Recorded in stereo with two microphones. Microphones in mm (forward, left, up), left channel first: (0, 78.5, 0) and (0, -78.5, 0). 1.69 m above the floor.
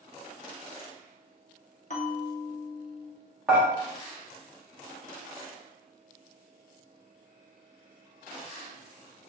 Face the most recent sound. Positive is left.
turn(degrees=-5)  # may be behind; listen again after turning